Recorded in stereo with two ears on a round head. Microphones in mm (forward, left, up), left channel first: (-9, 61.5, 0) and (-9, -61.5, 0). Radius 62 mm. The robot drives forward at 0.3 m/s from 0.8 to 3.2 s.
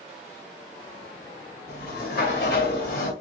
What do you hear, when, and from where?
1.7 s a sliding door: 80° left, 1.9 m; by 3.1 s 75° left (ahead or behind), 1.9 m